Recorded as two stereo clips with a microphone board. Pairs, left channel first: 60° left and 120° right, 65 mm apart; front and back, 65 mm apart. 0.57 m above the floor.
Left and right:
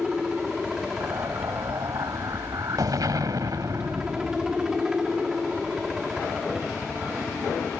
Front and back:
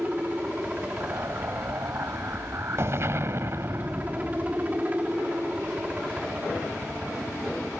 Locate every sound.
0.0 s a helicopter: 175° left
1.0 s an explosion: 135° right